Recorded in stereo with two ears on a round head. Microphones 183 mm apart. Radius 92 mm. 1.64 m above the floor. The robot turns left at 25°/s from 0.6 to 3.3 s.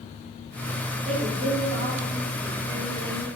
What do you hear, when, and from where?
1.1 s a woman speaking: 35° right, 0.9 m; by 3.3 s 90° right, 0.9 m